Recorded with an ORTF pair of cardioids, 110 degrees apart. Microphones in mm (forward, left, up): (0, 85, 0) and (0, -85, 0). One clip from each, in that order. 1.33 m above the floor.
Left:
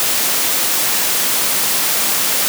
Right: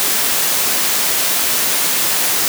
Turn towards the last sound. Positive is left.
No sound to turn to.